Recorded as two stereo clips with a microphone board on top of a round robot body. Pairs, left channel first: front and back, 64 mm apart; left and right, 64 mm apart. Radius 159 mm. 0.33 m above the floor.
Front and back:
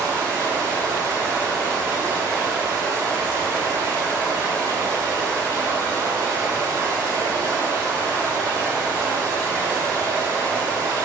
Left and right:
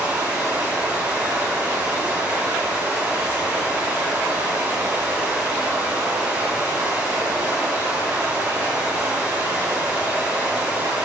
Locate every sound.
0.0 s running water: 160° right, 2.5 m